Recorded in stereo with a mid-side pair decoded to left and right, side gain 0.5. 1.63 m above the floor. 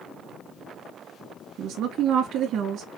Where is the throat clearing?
I don't hear throat clearing.